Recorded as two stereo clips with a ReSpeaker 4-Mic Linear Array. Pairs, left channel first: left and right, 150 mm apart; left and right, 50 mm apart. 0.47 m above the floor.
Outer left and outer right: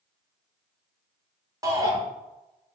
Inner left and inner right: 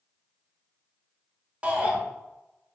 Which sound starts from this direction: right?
A shout, at 1.6 s.